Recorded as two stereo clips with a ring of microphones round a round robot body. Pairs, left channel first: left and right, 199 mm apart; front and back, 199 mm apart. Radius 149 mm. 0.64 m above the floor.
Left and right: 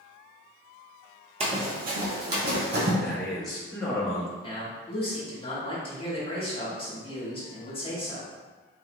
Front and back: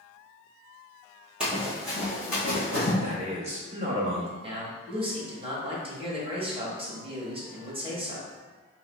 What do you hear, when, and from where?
1.4 s running footsteps: 100° right, 0.6 m; by 2.9 s 60° right, 1.7 m
3.0 s a man speaking: straight behind, 0.8 m
4.4 s a man speaking: 135° left, 1.2 m